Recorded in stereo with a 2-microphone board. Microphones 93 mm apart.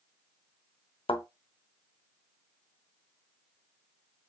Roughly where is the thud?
Left.